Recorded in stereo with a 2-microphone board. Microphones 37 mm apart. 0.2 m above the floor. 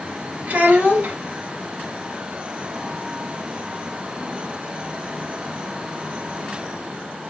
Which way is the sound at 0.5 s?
60° right (ahead or behind).